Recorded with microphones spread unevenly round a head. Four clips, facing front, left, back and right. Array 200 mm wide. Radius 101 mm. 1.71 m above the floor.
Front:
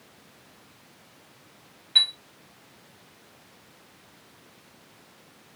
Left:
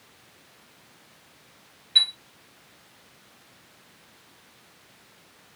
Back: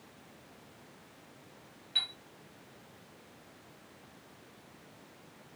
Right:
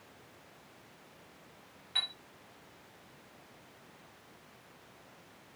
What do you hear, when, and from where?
1.9 s a chime: 35° right, 1.9 m